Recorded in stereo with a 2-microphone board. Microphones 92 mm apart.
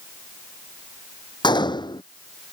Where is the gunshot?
55° left (ahead or behind).